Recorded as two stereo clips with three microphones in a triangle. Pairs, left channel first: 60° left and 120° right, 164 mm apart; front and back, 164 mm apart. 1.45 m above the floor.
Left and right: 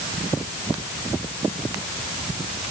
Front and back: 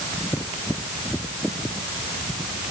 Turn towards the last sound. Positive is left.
No sound to turn to.